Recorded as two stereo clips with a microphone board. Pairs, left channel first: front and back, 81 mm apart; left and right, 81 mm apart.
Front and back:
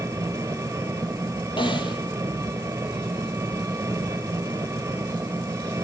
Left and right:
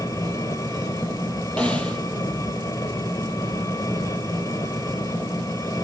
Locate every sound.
0.0 s an engine running: 125° left, 2 m
1.6 s a snare drum: 15° left, 3 m